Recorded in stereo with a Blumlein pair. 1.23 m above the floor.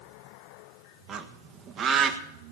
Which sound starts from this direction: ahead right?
A bird, at 1.1 s.